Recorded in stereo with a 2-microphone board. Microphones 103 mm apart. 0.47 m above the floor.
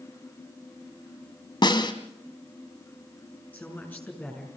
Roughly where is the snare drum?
Left.